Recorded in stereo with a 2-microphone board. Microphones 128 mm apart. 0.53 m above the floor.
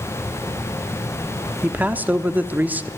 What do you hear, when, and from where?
1.6 s a man speaking: 15° right (ahead or behind), 0.8 m